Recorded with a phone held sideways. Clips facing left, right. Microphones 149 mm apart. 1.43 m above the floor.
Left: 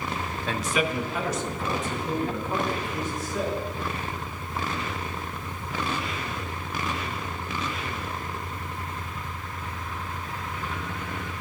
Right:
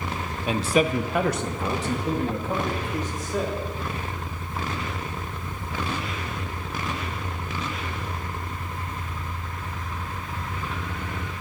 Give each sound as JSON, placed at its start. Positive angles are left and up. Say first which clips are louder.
{"t": 0.5, "sound": "a man speaking", "louder": "right 6 dB", "side_deg": -15, "distance_m": 0.7}